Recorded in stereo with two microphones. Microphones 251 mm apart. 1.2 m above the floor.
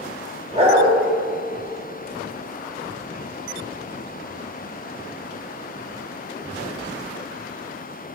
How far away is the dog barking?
About 1.7 m.